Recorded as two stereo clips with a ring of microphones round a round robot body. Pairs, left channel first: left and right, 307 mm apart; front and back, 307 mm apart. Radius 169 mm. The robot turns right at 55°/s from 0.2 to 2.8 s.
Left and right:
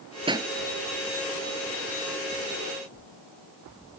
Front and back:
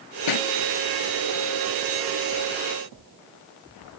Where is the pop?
15° right; by 0.5 s 5° right.